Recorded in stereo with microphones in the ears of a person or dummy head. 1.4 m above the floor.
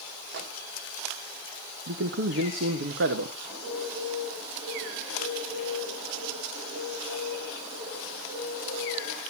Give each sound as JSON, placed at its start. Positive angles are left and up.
{"t": 0.3, "sound": "a microwave", "side_deg": -75, "distance_m": 1.6}
{"t": 1.9, "sound": "a man speaking", "side_deg": -60, "distance_m": 1.3}
{"t": 3.5, "sound": "a bird", "side_deg": -30, "distance_m": 7.0}